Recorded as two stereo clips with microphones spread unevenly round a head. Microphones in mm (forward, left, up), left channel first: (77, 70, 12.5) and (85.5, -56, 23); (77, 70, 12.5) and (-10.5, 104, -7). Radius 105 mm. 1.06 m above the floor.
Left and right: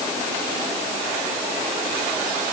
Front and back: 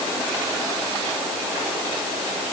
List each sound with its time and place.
Only background noise.